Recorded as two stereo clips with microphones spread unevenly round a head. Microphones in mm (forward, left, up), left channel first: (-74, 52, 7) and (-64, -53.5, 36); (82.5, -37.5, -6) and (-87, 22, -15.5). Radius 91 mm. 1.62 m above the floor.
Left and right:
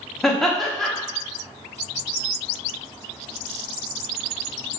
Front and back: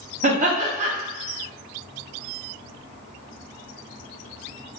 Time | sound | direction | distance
0.2 | laughter | 165° right | 0.6 m